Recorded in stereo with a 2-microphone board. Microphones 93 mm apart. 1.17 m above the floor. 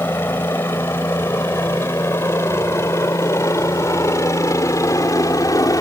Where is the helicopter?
25° left (ahead or behind); by 5.8 s 40° left (ahead or behind).